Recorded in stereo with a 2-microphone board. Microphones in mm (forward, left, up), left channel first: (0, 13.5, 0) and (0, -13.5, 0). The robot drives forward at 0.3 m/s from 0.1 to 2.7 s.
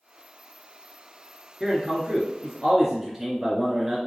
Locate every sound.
1.6 s a man speaking: 15° right (ahead or behind), 2 m